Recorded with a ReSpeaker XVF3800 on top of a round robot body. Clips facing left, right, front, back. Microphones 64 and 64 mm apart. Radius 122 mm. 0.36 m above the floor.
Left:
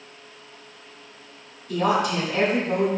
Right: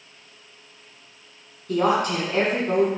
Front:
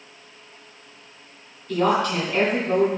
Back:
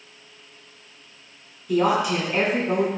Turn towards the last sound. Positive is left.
turn(degrees=-105)